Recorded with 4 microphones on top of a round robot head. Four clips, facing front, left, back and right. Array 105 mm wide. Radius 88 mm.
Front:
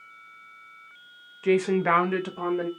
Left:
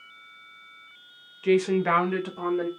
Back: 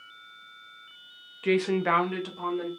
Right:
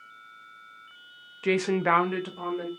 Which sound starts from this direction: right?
A woman speaking, at 1.4 s.